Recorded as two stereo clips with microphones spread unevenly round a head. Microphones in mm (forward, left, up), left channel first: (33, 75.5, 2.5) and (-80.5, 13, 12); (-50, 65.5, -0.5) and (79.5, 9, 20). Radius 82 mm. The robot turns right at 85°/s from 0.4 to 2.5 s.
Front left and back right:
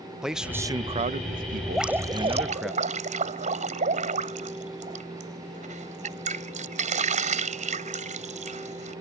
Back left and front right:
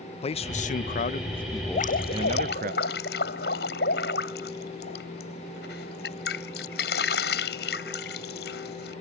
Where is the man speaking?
120° left; by 2.7 s 60° right.